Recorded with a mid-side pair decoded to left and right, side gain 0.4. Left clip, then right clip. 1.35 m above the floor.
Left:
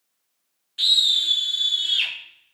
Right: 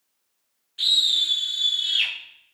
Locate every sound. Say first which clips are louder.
0.8 s a scream: left 2 dB; 45° left, 0.9 m; by 2.1 s 30° left, 2.0 m